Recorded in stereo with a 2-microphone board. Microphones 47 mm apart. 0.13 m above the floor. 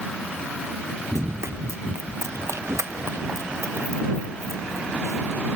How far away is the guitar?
No guitar in this recording.